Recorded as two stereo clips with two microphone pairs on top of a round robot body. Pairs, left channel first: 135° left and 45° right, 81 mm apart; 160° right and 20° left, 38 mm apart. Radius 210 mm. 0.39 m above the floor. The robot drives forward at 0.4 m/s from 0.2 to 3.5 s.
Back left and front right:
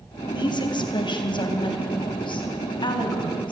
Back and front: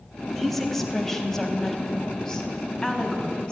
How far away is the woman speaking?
About 3 m.